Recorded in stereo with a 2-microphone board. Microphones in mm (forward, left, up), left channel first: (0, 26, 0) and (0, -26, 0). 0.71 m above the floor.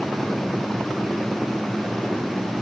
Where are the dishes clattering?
I don't hear dishes clattering.